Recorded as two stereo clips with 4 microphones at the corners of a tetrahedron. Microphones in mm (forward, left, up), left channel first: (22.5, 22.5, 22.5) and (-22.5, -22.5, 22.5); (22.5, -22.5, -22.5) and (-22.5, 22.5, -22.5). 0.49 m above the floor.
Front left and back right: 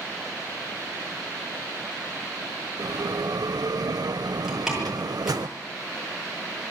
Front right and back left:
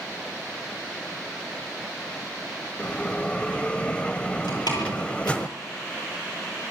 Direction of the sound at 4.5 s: 50° right.